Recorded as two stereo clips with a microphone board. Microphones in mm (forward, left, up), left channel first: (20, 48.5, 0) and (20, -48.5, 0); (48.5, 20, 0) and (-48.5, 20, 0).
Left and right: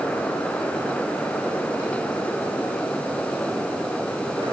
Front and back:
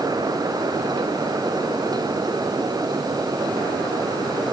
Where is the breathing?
I don't hear breathing.